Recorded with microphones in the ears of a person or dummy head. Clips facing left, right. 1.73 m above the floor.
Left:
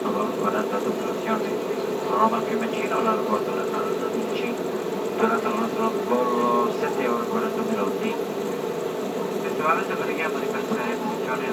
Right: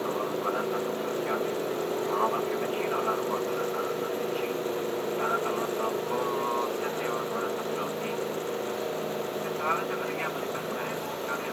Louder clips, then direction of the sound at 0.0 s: Left 6 dB; 65° left (ahead or behind).